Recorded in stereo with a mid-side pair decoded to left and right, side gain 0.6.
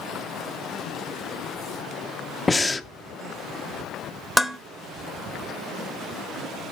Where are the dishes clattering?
10° left, 0.9 m.